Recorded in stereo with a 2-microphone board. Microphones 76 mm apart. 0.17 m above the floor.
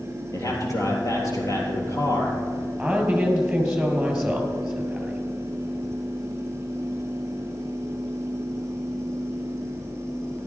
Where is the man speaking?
45° left (ahead or behind), 3.5 m.